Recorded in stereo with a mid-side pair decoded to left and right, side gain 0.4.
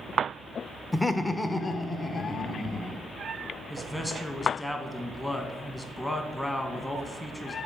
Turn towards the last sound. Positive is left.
turn(degrees=10)